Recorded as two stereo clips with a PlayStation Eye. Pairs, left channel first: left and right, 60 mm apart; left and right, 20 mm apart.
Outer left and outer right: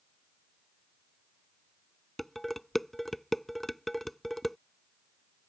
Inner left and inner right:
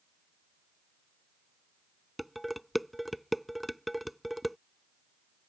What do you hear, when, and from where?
2.2 s dishes clattering: 5° left (ahead or behind)